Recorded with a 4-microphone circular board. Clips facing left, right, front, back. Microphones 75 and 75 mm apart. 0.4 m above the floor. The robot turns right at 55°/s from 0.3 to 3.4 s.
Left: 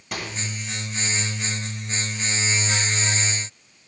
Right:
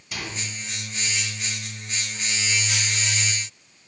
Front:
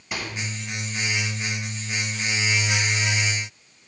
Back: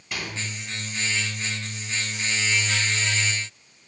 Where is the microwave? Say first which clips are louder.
Left 2 dB, front 1 dB; 75° left, 7 m; by 0.4 s 80° left, 7 m.